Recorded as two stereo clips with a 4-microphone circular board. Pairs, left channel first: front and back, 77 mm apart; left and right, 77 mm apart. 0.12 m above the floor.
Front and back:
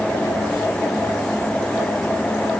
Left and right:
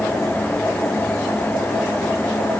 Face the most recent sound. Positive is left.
No sound to turn to.